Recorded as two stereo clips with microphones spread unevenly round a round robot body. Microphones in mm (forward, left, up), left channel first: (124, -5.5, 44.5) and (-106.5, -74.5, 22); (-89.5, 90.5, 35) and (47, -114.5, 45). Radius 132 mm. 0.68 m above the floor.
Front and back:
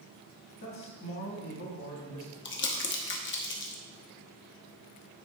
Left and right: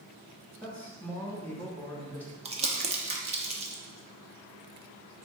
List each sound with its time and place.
0.6 s a man speaking: 45° left, 1.5 m
2.5 s crumpling: straight ahead, 0.9 m